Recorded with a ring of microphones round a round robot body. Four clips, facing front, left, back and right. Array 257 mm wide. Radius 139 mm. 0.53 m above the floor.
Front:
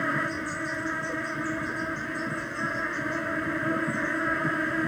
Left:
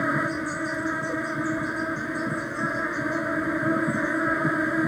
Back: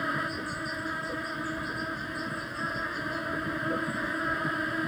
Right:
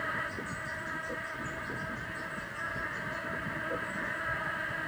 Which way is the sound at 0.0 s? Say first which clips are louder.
Left 11 dB, front 3 dB; 80° left.